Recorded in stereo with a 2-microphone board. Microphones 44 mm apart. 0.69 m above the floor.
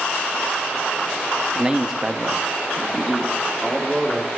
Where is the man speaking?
20° right (ahead or behind), 0.9 m; by 4.3 s 5° left (ahead or behind), 1.8 m.